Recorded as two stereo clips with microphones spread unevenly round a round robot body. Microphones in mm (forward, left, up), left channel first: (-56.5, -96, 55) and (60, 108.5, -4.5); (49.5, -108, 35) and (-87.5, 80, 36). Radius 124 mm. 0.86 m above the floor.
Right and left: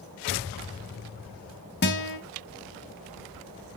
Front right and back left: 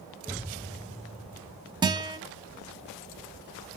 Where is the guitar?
160° right, 2 m.